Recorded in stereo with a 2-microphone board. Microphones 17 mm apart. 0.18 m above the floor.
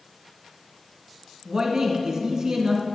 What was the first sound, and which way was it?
A man speaking, 35° right (ahead or behind).